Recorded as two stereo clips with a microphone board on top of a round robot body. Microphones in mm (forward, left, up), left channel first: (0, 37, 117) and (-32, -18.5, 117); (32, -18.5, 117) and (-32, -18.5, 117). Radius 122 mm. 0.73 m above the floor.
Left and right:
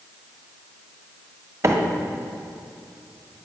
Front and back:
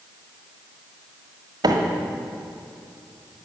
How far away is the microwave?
About 1.3 m.